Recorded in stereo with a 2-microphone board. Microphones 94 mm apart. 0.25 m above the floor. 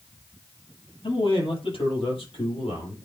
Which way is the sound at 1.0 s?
70° left (ahead or behind).